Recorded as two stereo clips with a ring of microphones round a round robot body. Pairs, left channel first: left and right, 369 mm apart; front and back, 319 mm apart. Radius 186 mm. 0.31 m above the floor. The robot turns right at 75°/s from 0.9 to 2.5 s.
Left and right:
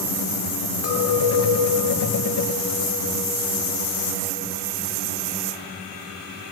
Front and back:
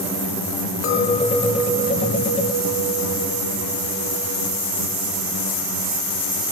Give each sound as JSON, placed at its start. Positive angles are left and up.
{"t": 0.8, "sound": "a clink", "azimuth_deg": 45, "distance_m": 1.2}